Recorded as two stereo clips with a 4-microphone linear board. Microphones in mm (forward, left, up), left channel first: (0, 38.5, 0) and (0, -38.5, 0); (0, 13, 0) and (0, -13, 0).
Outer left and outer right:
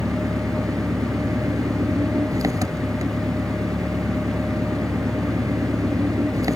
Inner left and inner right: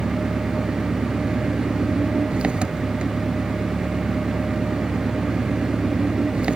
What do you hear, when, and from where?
0.0 s an engine running: 45° right (ahead or behind)